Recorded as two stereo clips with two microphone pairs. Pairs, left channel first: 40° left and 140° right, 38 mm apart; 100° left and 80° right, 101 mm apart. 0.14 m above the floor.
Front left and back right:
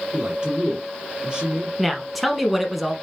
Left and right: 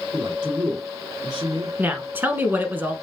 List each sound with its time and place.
0.1 s a man speaking: 90° right, 2.5 m
1.8 s a woman speaking: 60° right, 1.0 m